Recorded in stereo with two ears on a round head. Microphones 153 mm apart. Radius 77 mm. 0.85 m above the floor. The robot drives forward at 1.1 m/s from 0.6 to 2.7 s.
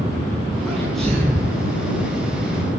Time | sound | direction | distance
0.7 | a sneeze | centre (ahead or behind) | 7 m